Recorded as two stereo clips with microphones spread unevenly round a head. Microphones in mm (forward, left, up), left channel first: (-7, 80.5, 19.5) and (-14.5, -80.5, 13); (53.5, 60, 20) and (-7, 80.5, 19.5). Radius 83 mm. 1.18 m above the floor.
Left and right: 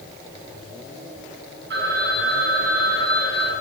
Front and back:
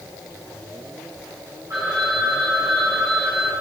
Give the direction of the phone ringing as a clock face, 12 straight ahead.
4 o'clock.